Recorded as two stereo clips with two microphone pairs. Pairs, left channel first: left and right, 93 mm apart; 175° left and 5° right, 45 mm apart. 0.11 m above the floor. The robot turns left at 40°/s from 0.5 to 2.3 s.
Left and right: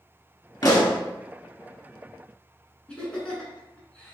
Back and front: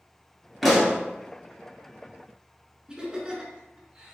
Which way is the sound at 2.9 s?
30° left.